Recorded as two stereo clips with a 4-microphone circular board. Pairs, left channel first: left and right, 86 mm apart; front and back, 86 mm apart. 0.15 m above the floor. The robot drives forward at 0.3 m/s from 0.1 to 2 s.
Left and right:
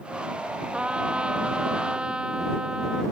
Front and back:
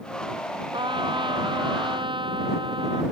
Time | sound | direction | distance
0.7 | a trumpet | 165° right | ?